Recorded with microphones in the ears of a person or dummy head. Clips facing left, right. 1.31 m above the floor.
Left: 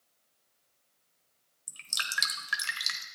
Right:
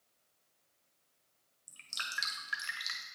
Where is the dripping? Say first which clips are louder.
Left 5 dB; 70° left (ahead or behind), 1.2 m.